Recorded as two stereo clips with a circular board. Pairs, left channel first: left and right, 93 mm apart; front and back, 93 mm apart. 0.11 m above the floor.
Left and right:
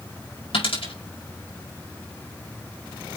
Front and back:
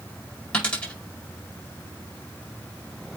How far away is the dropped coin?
About 4.5 m.